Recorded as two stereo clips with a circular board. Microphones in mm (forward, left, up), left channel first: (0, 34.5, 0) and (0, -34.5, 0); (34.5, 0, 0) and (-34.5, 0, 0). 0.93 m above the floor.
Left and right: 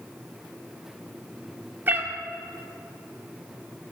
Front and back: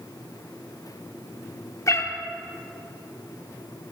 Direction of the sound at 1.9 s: 35° right.